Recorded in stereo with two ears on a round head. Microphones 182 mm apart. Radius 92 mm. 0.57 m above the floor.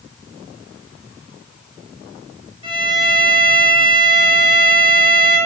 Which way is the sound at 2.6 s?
25° left (ahead or behind).